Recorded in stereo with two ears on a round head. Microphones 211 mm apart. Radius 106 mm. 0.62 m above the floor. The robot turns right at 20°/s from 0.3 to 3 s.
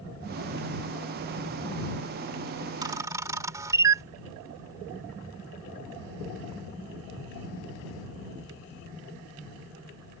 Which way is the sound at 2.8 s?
20° right (ahead or behind).